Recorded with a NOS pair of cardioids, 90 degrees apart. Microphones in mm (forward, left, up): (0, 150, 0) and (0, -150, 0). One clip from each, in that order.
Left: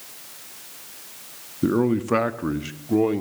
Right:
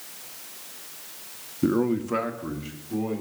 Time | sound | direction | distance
1.6 | a man speaking | 5° left | 0.6 m